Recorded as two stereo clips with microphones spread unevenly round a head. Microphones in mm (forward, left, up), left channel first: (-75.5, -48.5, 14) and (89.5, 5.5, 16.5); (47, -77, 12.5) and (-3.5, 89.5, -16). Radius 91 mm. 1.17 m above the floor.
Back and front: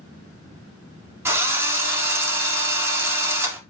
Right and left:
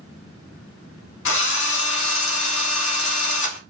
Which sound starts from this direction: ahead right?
A drill, at 1.2 s.